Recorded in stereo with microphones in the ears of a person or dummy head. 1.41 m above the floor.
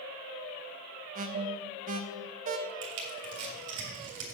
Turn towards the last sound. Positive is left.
turn(degrees=-70)  # may be behind; listen again after turning